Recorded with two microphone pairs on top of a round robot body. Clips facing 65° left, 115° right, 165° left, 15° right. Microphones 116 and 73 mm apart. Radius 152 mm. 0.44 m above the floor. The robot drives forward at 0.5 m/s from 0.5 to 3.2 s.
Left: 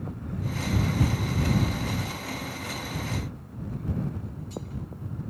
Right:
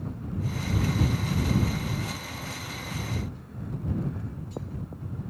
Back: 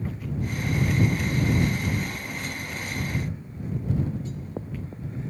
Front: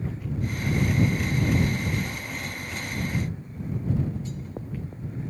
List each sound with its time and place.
Only background noise.